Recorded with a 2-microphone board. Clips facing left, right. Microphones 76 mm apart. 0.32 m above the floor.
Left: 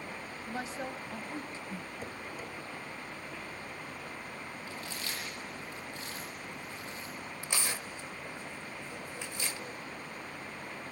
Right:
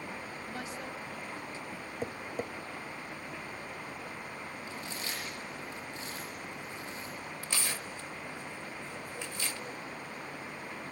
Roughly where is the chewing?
Right.